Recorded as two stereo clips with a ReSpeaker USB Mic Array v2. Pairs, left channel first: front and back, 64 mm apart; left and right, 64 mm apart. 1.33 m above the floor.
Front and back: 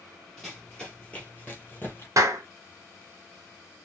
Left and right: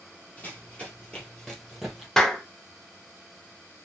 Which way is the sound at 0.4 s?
75° left.